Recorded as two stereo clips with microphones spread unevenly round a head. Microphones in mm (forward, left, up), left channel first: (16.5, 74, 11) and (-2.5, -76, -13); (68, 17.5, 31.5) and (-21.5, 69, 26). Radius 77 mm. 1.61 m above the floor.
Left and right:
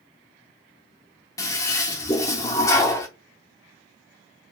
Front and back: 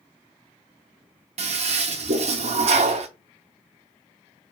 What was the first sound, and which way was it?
A toilet flushing, 155° left.